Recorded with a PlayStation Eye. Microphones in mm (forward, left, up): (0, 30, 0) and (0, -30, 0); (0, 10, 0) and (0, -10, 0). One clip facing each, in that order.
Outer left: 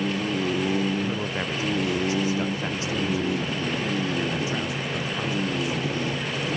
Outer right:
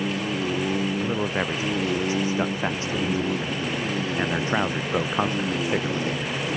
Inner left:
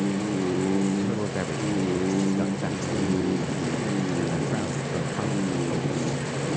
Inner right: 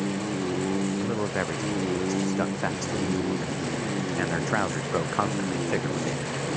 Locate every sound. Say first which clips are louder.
1.0 s a man speaking: outer right 3 dB, even; 20° right (ahead or behind); by 6.4 s 55° right (ahead or behind)